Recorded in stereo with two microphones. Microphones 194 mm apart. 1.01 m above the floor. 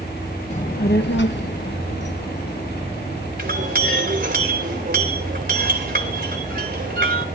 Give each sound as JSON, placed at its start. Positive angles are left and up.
{"t": 0.5, "sound": "a child speaking", "side_deg": 35, "distance_m": 0.5}
{"t": 3.4, "sound": "a clink", "side_deg": -50, "distance_m": 3.0}